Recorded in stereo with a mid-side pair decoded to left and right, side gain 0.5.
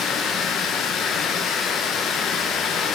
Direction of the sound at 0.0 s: 65° left.